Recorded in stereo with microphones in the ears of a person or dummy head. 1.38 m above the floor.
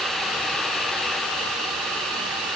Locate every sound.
Only background noise.